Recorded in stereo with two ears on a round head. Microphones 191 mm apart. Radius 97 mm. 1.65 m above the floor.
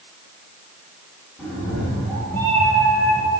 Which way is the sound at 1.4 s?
Centre (ahead or behind).